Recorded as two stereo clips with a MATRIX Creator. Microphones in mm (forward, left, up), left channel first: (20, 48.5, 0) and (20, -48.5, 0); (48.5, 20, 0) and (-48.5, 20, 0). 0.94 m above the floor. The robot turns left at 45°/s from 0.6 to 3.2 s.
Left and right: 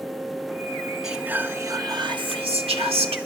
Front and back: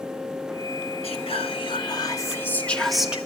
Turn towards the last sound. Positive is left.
turn(degrees=-100)